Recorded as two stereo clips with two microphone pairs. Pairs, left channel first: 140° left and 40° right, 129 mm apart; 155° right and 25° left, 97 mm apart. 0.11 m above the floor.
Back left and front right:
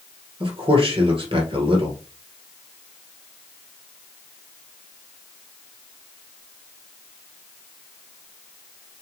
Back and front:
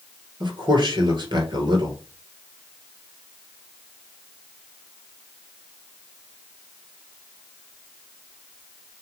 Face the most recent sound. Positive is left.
turn(degrees=-5)